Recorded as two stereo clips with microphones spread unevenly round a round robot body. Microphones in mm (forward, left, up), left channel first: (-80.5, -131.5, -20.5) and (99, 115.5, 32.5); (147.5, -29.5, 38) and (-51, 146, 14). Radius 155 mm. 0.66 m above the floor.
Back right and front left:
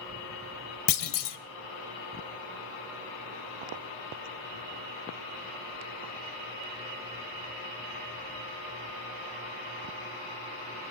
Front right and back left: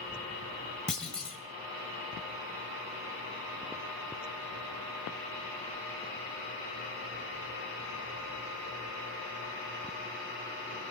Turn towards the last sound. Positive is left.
turn(degrees=-130)